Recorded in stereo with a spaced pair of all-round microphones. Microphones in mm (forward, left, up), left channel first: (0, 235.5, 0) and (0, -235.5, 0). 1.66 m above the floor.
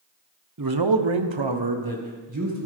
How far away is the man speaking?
About 1.0 m.